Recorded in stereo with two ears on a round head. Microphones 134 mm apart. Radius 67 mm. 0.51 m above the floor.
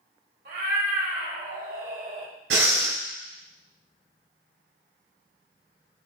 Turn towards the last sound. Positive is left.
turn(degrees=-85)